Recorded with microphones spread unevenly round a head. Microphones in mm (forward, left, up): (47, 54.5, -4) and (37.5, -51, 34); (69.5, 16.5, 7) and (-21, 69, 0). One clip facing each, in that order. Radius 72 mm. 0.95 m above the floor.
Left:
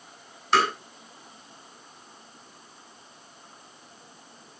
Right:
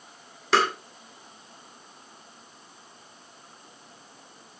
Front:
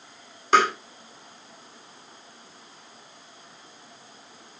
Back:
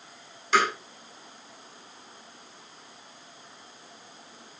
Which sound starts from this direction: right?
Tapping, at 0.5 s.